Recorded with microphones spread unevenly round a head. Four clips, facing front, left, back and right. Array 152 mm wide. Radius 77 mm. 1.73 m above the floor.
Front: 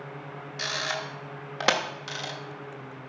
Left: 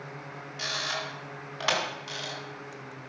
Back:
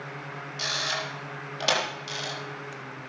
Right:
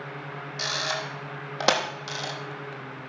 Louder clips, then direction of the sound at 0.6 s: Right 3 dB, even; 60° right.